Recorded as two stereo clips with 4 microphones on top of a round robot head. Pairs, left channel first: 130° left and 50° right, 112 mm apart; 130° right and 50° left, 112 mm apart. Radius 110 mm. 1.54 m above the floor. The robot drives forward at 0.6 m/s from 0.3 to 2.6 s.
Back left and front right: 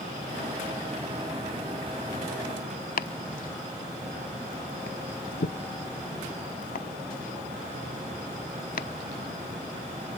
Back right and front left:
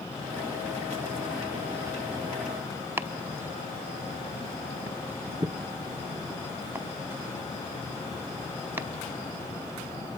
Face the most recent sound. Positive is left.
turn(degrees=120)